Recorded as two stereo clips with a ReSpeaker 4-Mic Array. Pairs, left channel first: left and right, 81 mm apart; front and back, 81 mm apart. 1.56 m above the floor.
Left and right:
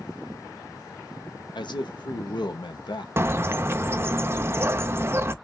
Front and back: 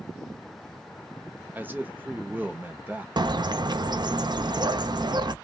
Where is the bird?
150° right, 0.5 m.